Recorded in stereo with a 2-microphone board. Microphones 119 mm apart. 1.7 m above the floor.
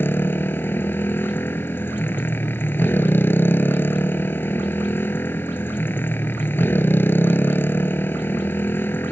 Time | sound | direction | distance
0.0 | a motorcycle | 15° left (ahead or behind) | ?